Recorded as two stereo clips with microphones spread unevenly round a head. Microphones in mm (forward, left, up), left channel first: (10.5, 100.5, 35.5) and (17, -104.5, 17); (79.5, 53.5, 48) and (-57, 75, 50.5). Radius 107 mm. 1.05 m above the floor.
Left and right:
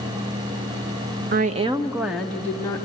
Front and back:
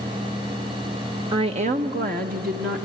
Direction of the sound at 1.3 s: 130° right.